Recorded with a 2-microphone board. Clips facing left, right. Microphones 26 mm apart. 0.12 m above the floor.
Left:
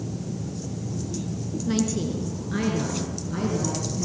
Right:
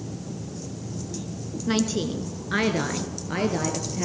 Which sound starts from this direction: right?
A woman speaking, at 1.7 s.